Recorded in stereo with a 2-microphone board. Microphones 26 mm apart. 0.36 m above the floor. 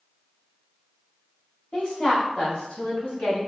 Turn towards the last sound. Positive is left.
turn(degrees=60)  # may be behind; listen again after turning